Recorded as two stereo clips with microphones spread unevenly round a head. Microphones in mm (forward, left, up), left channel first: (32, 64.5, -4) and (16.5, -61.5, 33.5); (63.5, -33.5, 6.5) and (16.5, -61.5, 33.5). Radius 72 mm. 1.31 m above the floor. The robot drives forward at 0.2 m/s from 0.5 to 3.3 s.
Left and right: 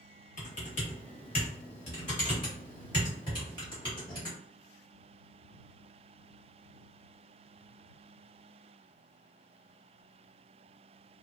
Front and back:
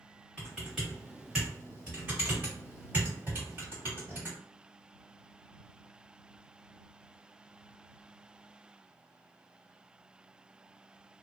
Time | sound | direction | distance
0.4 | typing on a keyboard | 130° left | 0.9 m